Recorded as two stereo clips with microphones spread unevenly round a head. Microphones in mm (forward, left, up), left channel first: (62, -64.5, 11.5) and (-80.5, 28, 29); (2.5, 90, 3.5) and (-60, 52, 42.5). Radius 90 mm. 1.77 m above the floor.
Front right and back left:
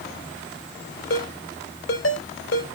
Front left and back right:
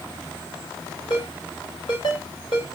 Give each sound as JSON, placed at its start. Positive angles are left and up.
{"t": 1.1, "sound": "a ringtone", "azimuth_deg": -40, "distance_m": 3.0}